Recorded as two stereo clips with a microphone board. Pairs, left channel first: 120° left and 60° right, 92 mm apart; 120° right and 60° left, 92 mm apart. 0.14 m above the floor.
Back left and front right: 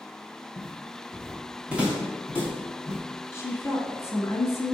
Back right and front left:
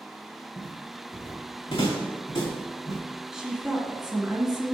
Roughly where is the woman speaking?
Behind left.